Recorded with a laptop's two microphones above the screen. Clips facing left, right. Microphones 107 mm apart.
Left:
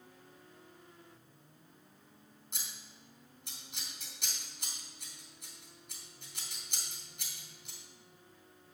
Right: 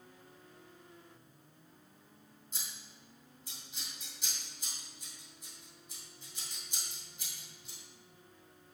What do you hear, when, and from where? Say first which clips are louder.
2.5 s scissors: left 1 dB; 75° left (ahead or behind), 3 m